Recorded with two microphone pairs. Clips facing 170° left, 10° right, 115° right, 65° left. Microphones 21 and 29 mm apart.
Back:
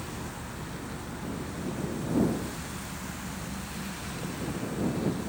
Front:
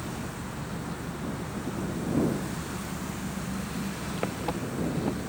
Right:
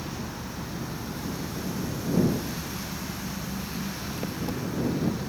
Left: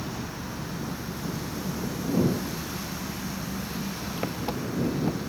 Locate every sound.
0.0 s an engine running: straight ahead